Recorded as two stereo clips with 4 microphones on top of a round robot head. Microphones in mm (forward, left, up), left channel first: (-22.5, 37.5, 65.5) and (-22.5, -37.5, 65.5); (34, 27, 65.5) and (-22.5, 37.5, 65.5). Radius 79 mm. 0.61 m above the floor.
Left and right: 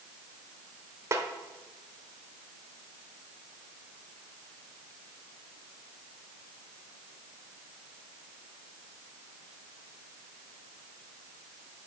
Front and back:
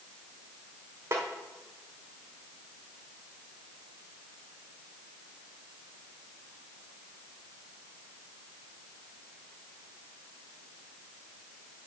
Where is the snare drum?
140° right, 1.1 m.